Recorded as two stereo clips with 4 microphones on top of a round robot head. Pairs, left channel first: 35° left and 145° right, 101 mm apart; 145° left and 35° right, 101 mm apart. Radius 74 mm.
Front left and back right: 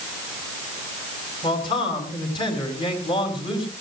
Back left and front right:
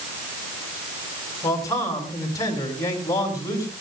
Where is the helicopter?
No helicopter in this recording.